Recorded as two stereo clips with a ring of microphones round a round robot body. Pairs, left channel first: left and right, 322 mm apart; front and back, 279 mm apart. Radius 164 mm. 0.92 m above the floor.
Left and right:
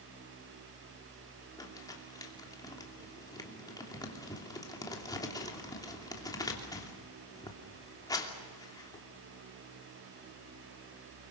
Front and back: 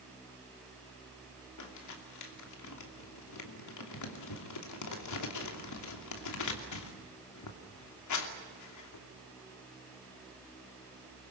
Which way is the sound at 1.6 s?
10° left.